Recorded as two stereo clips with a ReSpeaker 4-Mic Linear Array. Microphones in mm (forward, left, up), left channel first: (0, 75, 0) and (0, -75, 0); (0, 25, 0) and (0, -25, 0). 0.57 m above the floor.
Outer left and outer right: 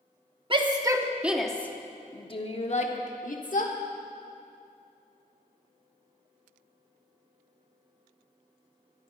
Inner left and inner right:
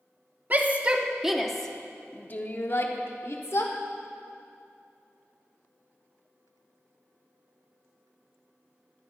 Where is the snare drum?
I don't hear a snare drum.